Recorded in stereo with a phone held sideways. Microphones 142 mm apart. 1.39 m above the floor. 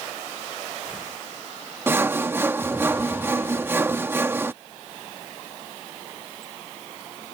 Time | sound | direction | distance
1.9 | sawing | 15° right (ahead or behind) | ?